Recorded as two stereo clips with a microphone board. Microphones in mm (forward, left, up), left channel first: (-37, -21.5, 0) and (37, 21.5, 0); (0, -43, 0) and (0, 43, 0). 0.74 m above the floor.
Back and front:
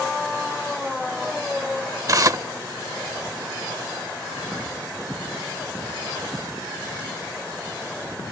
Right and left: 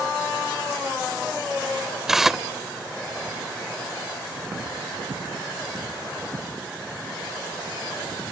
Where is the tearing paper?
5° left.